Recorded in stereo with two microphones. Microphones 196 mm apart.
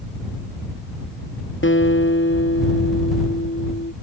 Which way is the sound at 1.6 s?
85° left.